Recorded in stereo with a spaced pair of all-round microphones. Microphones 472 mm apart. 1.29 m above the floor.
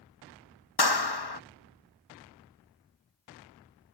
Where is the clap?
55° left (ahead or behind).